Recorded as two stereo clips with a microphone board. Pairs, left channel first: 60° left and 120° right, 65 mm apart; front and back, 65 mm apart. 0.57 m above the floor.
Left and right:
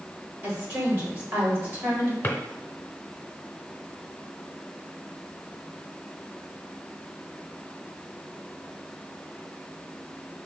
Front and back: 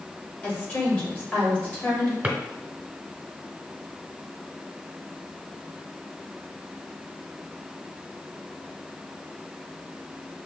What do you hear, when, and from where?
0.4 s a woman speaking: 70° right, 2.5 m
2.2 s a drawer: 115° left, 0.9 m